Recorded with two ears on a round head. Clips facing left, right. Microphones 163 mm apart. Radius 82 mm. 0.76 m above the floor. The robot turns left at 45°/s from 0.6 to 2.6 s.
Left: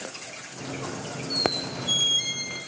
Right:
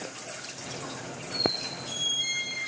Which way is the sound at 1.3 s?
130° left.